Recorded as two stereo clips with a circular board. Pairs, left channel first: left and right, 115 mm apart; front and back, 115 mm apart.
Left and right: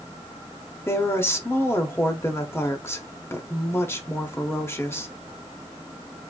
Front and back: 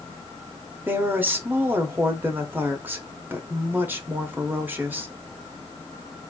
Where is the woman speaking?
130° left, 0.9 m.